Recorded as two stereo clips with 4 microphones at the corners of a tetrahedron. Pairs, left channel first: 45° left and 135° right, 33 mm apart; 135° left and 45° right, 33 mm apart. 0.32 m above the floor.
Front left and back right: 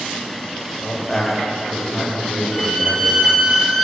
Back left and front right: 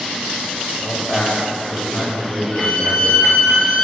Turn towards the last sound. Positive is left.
turn(degrees=120)